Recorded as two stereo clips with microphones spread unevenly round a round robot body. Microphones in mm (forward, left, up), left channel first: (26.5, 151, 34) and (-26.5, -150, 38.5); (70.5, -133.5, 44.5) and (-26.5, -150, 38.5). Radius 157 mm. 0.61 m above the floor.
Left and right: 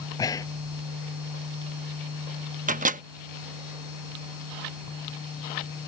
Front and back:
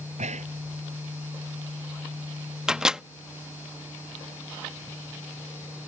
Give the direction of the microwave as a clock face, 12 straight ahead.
4 o'clock.